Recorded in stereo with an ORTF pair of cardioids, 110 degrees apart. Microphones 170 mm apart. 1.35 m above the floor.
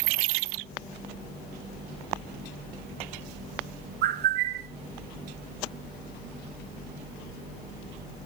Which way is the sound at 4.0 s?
70° right.